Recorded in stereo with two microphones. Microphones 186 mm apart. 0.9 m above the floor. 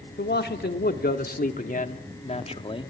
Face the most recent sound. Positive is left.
turn(degrees=25)  # may be behind; listen again after turning